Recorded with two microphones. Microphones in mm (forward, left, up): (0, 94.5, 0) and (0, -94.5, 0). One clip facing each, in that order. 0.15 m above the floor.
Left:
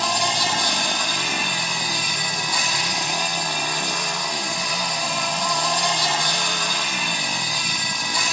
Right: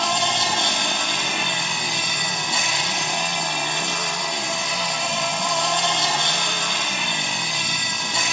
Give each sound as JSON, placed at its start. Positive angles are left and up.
{"t": 0.0, "sound": "an insect", "side_deg": -25, "distance_m": 4.0}